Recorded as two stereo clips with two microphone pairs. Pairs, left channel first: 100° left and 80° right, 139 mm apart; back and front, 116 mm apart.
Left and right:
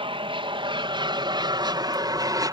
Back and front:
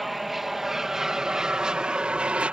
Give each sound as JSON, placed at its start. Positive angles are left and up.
{"t": 0.0, "sound": "an aircraft", "azimuth_deg": -85}